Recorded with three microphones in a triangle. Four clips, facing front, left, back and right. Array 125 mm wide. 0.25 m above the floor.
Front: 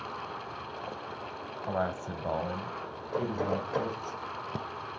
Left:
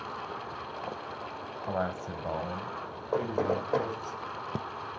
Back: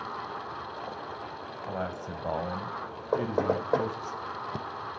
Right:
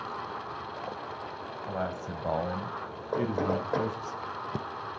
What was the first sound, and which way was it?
A man speaking, 45° left.